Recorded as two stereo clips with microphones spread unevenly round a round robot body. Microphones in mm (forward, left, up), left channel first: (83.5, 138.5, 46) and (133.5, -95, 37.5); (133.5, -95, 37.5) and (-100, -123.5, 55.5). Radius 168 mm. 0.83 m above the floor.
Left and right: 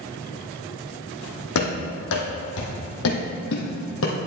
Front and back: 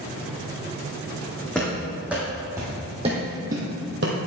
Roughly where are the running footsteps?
Left.